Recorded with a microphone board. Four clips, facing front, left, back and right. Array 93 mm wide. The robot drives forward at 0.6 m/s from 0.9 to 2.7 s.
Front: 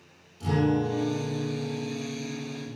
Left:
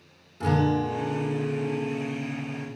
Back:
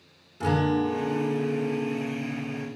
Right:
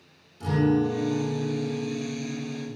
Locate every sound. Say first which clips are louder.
0.4 s a guitar: right 1 dB, back 1 dB; 145° left, 7.5 m; by 2.7 s 150° left, 8.5 m